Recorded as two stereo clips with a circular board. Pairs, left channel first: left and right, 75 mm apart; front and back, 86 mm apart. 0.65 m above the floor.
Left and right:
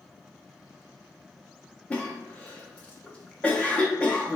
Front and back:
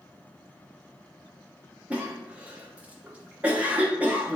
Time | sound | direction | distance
1.9 | a cough | 135° left | 0.5 m